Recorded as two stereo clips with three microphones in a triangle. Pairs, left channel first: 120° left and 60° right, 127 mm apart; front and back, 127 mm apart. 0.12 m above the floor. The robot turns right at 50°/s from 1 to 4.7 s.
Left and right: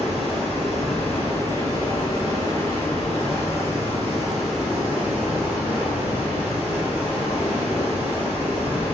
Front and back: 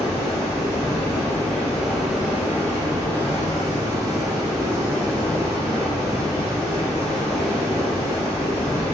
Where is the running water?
40° left, 1.5 m; by 8.9 s 135° right, 1.5 m.